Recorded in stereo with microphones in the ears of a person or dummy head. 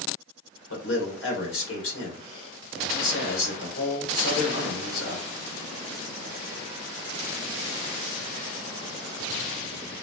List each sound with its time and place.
0.7 s a man speaking: 80° left, 1.6 m